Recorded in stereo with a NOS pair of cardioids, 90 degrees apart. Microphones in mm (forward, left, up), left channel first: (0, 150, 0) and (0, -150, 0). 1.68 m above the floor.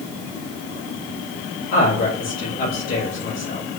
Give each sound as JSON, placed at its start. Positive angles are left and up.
{"t": 1.7, "sound": "a man speaking", "azimuth_deg": 60, "distance_m": 5.0}